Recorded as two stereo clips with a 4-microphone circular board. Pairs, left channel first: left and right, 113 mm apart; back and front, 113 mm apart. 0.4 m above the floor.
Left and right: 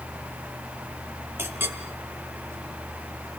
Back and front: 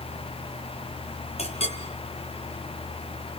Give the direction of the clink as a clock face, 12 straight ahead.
5 o'clock.